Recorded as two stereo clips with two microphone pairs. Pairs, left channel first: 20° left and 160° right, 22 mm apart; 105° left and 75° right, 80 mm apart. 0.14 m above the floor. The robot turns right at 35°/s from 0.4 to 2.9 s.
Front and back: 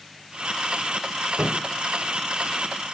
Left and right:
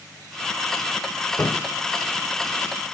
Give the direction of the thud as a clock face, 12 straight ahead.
6 o'clock.